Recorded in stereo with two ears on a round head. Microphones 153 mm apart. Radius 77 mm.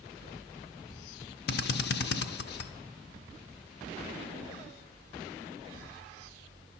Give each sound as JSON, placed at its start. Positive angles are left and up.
{"t": 1.5, "sound": "a drill", "side_deg": 65, "distance_m": 0.5}